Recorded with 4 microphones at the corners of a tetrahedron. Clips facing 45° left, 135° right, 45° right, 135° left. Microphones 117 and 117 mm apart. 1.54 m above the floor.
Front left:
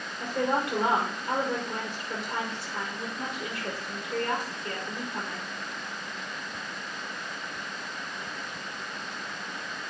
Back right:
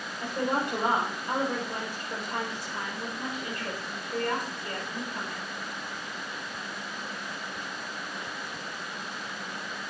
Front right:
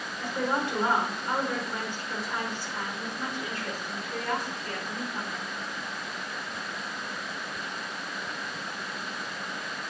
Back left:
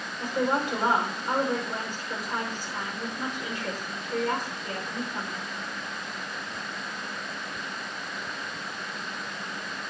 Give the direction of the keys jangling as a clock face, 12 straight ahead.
I don't hear keys jangling.